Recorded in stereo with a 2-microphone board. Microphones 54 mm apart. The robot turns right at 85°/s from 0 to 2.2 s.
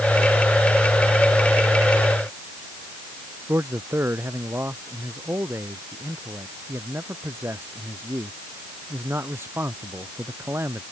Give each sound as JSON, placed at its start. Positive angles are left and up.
{"t": 3.5, "sound": "a man speaking", "side_deg": -45}